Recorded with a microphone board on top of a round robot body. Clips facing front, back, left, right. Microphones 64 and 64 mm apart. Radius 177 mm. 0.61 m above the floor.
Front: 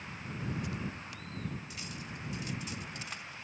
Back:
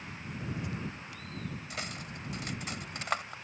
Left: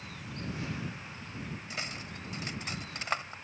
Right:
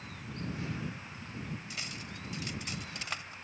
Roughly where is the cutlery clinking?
Behind left.